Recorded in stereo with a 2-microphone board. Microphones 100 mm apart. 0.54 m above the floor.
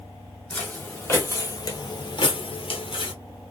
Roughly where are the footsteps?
Centre.